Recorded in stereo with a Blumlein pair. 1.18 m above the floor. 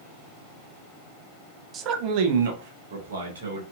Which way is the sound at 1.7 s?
25° right.